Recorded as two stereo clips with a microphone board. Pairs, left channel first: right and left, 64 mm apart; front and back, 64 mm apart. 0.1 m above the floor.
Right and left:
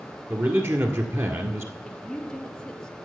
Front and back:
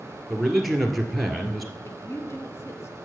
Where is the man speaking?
90° left, 1.6 m.